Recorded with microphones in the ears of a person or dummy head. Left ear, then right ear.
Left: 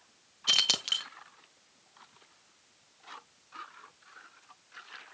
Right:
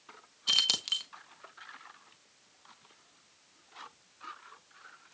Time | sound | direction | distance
0.5 | keys jangling | 10° left (ahead or behind) | 0.7 m